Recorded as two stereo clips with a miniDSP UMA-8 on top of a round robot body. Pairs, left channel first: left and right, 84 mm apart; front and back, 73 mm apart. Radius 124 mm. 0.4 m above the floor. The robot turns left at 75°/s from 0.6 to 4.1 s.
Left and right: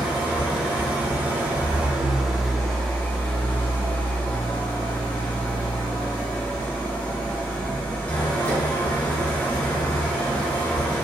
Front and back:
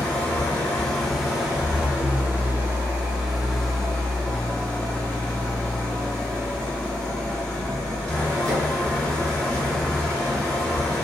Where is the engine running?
45° right, 1.1 m; by 11.1 s 55° left, 1.1 m.